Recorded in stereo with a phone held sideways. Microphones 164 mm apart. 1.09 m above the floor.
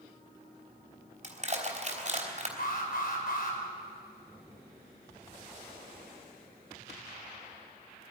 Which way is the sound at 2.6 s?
65° left (ahead or behind).